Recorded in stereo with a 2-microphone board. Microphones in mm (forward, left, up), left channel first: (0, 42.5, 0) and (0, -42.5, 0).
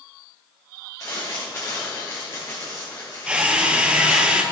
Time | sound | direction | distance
1.0 | crumpling | 35° left (ahead or behind) | 5 m
3.3 | a drill | 10° right (ahead or behind) | 1.7 m